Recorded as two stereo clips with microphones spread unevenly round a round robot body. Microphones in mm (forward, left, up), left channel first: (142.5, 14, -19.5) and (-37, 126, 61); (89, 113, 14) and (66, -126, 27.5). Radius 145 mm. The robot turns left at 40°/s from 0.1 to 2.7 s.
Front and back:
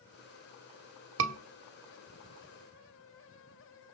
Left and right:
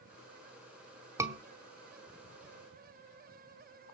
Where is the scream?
175° right, 1.2 m; by 1.4 s straight behind, 1.2 m.